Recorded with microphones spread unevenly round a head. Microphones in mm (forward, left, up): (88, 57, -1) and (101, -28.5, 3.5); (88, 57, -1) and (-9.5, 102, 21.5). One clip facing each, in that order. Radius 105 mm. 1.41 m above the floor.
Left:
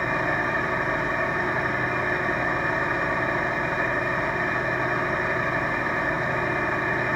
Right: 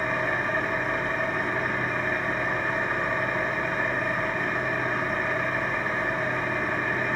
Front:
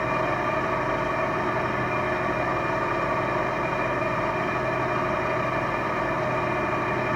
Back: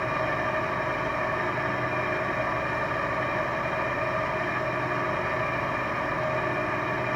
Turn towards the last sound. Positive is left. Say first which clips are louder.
# left 2 dB, front 3 dB
turn(degrees=25)